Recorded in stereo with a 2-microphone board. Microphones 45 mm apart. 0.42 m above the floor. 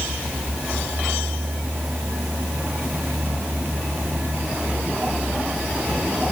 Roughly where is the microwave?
I don't hear a microwave.